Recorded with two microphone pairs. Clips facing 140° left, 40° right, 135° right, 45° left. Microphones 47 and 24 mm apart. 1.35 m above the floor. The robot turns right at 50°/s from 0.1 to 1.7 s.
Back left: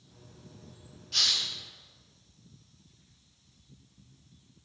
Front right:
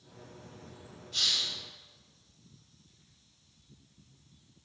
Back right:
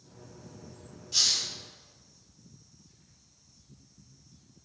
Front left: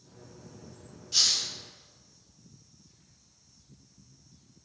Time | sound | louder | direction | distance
1.1 | a hiss | back left 2 dB, front left 1 dB | 120° left | 1.0 m